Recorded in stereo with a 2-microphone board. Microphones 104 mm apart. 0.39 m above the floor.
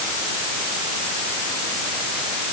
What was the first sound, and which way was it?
Only background noise.